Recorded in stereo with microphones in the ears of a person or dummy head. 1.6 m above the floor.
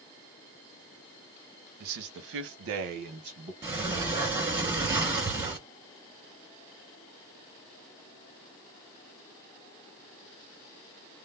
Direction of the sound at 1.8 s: 50° right (ahead or behind).